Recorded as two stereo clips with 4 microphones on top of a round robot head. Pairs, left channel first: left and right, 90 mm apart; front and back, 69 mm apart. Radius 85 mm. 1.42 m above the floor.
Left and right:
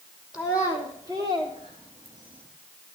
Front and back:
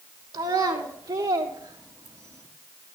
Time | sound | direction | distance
0.3 | a child speaking | 170° right | 1.2 m